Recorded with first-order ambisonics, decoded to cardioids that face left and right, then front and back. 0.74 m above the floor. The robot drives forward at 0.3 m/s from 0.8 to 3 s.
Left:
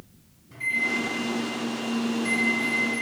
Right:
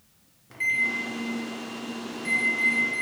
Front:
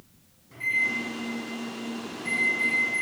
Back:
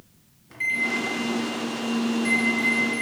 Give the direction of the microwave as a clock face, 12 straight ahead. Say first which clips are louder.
Right 1 dB, back 1 dB; 4 o'clock.